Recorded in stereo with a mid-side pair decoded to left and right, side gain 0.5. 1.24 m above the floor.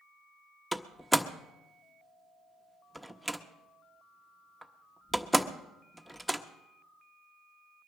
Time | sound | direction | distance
0.7 | a door slam | straight ahead | 1.1 m